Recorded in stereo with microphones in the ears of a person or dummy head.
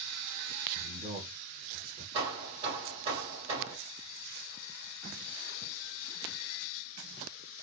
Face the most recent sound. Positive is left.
turn(degrees=-30)  # may be behind; listen again after turning